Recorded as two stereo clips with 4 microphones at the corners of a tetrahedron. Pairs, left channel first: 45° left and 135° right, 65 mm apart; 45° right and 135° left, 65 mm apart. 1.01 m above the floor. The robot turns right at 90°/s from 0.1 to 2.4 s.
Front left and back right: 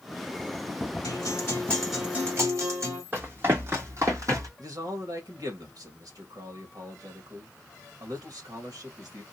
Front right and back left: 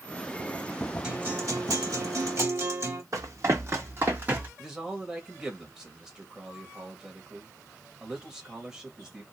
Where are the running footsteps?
170° left, 2 m; by 4.5 s 160° right, 2.5 m.